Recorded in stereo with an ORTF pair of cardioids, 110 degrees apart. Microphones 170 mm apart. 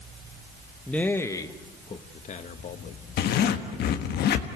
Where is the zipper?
65° left, 1.4 m.